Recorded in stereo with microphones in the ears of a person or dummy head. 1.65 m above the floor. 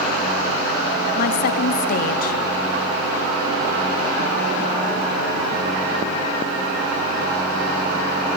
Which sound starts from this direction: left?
A woman speaking, at 1.2 s.